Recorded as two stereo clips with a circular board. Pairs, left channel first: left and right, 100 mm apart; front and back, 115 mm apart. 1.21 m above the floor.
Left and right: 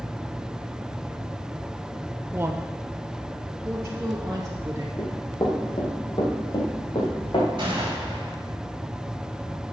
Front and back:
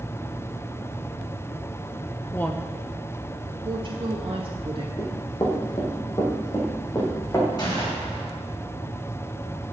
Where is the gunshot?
50° right, 4.5 m.